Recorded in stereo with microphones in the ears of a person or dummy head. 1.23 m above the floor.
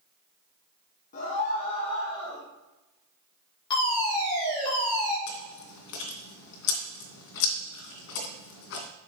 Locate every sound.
1.1 s a scream: 45° left (ahead or behind), 1.8 m; by 2.5 s 20° left (ahead or behind), 2 m
3.7 s a fire alarm: 25° left (ahead or behind), 5 m
5.3 s chewing: 70° left (ahead or behind), 2.5 m